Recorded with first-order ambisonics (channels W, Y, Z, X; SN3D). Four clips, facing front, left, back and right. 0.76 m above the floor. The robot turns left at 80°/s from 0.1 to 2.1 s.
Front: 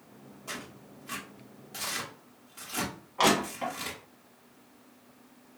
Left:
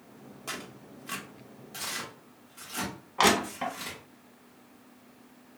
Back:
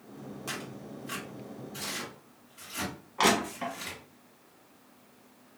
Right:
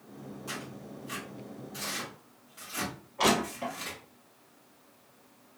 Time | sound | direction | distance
0.5 | tearing paper | 140° left | 1.0 m
3.2 | crushing | 90° left | 0.9 m